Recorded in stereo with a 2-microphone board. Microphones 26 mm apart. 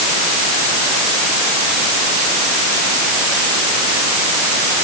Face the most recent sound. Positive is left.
No sound to turn to.